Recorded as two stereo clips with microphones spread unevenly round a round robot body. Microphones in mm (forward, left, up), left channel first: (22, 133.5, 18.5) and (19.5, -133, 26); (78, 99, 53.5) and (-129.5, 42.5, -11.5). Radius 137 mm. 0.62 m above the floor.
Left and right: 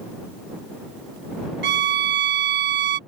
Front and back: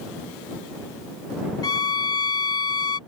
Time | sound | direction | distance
1.6 | a violin | 70° right | ?